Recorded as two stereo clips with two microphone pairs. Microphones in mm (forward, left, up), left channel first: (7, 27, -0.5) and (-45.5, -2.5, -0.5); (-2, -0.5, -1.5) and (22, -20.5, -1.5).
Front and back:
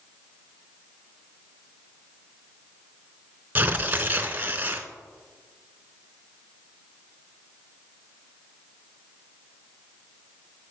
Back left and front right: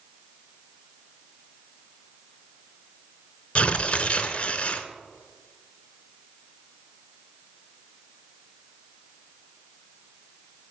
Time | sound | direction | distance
3.5 | tearing paper | 160° left | 0.6 m